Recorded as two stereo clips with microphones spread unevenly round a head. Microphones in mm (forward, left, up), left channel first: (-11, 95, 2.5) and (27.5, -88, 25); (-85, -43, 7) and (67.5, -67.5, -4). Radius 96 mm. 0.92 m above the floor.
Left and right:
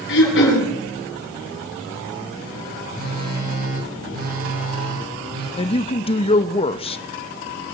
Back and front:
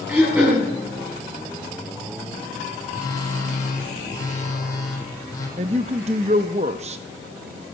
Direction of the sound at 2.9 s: 120° right.